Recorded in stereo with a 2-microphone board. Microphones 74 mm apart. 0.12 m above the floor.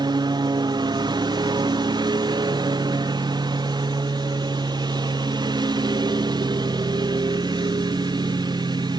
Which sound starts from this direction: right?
A lawn mower, at 0.0 s.